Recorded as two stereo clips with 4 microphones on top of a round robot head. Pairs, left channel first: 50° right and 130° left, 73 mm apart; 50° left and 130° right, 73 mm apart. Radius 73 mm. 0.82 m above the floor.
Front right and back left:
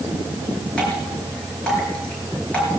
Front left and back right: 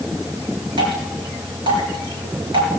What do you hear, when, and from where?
0.8 s dripping: 130° right, 4 m